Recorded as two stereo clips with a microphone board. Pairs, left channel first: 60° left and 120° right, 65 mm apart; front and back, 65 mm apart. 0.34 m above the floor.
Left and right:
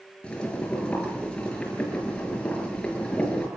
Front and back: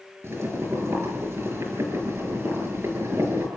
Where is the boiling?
135° left, 6.5 m.